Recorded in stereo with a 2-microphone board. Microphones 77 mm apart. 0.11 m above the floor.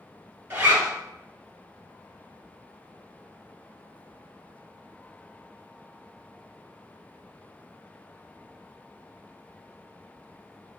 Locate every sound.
0.5 s a zipper: 30° right (ahead or behind), 1.0 m